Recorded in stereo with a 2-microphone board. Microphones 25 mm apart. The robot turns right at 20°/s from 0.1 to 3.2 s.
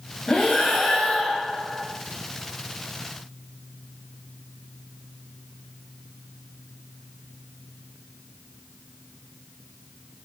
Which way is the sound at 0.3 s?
30° left (ahead or behind).